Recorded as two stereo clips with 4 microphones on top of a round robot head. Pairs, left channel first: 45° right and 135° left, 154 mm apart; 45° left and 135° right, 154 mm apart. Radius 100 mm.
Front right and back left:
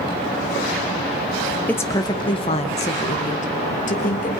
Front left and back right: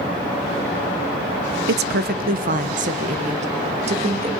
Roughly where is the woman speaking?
Behind right.